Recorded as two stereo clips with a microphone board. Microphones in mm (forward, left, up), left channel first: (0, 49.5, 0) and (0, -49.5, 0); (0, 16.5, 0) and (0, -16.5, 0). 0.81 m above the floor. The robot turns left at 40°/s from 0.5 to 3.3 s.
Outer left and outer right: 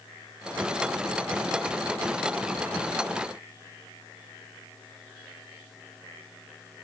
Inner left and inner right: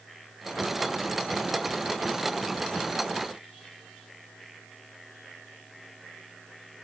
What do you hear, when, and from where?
Only background noise.